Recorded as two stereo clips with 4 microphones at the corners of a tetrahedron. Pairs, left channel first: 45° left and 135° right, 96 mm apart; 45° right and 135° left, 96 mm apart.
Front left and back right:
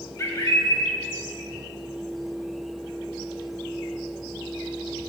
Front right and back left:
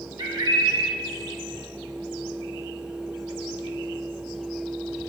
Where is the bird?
100° left, 1.1 m.